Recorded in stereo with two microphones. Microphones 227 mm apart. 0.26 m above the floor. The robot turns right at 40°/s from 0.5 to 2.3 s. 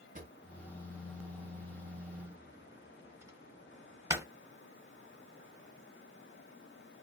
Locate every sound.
0.1 s a drawer: 35° right (ahead or behind), 0.8 m; by 4.3 s 10° right (ahead or behind), 0.8 m